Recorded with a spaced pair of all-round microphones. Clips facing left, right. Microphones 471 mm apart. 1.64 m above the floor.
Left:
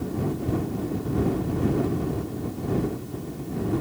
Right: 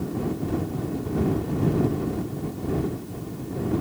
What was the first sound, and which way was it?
Only background noise.